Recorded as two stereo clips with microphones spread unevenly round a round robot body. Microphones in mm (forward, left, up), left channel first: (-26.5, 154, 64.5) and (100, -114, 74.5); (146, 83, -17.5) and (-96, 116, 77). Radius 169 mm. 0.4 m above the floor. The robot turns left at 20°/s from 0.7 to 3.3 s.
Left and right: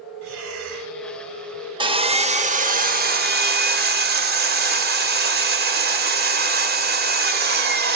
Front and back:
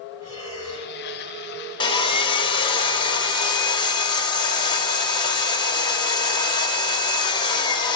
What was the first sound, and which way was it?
Breathing, 110° right.